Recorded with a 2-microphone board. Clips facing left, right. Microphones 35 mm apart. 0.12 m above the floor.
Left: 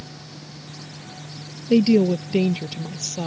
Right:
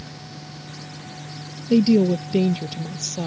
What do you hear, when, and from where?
1.7 s a woman speaking: 30° left (ahead or behind)